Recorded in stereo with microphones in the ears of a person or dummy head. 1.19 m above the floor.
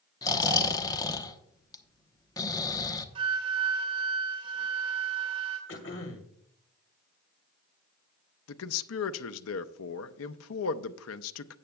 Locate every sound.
0.2 s snoring: 20° left (ahead or behind), 1.0 m
3.1 s a flute: 35° right (ahead or behind), 3.5 m
5.7 s throat clearing: 60° left (ahead or behind), 1.9 m
8.5 s a man speaking: 75° left (ahead or behind), 0.7 m